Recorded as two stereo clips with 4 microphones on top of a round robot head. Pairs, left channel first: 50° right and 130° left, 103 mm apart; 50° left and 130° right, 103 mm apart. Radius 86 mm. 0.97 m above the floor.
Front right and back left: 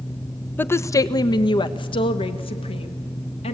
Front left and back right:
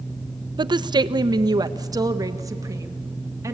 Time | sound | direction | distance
0.6 | a woman speaking | 115° right | 0.7 m